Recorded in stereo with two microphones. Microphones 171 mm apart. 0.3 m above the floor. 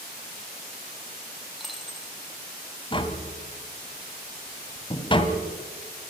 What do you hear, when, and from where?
1.6 s a dropped coin: centre (ahead or behind), 3 m
2.9 s tapping: 30° left (ahead or behind), 2 m